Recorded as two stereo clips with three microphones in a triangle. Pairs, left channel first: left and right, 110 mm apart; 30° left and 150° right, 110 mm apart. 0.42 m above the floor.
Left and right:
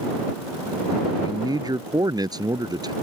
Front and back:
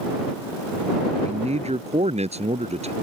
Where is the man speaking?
145° right.